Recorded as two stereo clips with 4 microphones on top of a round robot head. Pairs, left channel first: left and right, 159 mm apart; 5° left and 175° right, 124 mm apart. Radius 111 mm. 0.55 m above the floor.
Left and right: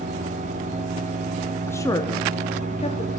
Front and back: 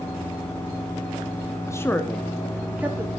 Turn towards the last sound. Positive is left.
turn(degrees=120)